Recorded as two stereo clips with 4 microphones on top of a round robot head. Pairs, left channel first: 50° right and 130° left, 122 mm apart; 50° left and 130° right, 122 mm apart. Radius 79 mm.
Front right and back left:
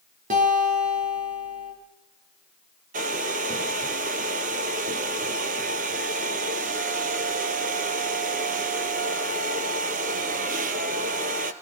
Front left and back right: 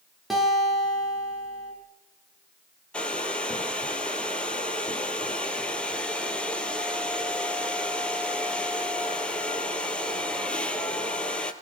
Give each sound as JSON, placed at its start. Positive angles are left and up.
{"t": 0.3, "sound": "a guitar", "azimuth_deg": 140, "distance_m": 8.0}
{"t": 2.9, "sound": "a hair dryer", "azimuth_deg": 130, "distance_m": 2.0}